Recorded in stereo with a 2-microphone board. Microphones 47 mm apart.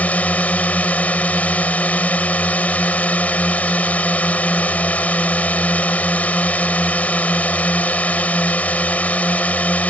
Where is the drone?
30° left (ahead or behind).